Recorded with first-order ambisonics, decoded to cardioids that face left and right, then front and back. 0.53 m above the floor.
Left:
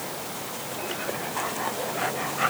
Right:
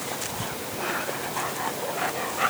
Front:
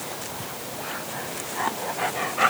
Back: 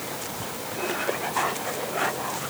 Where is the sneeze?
I don't hear a sneeze.